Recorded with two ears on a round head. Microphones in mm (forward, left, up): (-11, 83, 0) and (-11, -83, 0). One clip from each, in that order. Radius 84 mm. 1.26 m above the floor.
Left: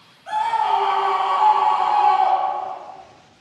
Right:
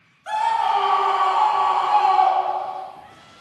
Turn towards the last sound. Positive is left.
turn(degrees=-55)  # may be behind; listen again after turning